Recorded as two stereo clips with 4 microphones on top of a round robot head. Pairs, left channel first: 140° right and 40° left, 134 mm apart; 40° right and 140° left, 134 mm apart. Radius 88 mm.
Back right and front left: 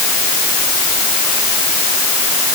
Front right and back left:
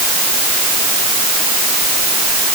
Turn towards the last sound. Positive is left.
No sound to turn to.